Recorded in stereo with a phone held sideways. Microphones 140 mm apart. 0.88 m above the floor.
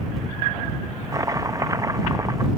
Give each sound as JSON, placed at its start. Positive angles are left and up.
{"t": 1.1, "sound": "chopping", "side_deg": -25}